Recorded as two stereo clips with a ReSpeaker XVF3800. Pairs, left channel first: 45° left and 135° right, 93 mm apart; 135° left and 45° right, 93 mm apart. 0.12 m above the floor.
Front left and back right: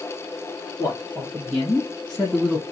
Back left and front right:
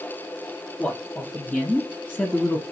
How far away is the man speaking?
About 1.8 m.